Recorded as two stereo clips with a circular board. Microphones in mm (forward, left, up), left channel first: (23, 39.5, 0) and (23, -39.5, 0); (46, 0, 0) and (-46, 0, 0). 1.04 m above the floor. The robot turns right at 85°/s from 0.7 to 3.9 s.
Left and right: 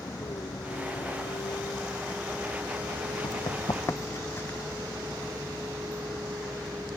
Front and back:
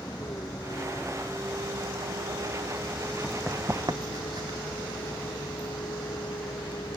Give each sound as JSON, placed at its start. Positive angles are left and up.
{"t": 0.0, "sound": "a vehicle", "azimuth_deg": 50}
{"t": 3.2, "sound": "running footsteps", "azimuth_deg": 70}